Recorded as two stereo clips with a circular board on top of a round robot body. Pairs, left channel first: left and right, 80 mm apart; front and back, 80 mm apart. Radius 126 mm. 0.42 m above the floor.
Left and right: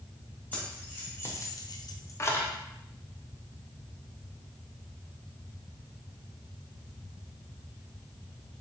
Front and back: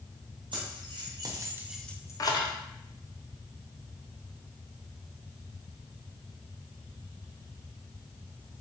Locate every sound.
0.5 s keys jangling: 165° left, 1.8 m; by 2.5 s 25° left, 1.1 m